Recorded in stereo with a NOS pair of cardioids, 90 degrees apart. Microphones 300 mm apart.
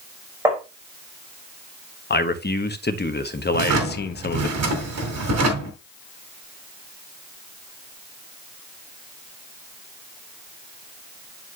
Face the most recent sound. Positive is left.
turn(degrees=-60)